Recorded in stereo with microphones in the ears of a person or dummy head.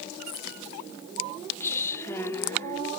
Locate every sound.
1.6 s a woman speaking: 10° left (ahead or behind)